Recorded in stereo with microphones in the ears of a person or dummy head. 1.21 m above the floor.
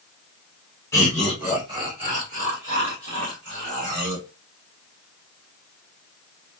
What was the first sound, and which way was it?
Laughter, 15° left (ahead or behind).